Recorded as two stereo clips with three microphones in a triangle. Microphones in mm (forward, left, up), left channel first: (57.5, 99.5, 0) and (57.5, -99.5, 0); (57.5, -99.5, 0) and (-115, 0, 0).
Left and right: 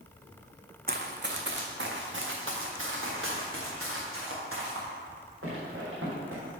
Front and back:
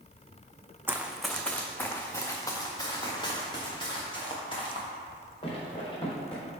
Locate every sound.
0.9 s running footsteps: 130° right, 0.8 m; by 6.4 s 95° right, 4 m